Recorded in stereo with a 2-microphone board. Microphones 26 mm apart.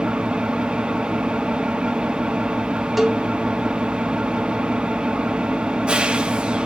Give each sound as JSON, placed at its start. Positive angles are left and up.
{"t": 0.0, "sound": "an engine running", "side_deg": -45, "distance_m": 0.9}
{"t": 3.0, "sound": "a cowbell", "side_deg": 0, "distance_m": 1.5}